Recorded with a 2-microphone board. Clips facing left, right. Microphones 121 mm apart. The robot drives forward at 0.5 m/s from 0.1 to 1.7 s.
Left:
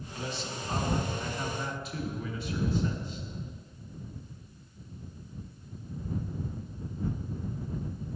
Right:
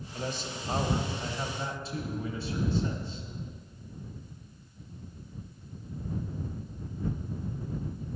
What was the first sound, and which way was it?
A man speaking, 40° right (ahead or behind).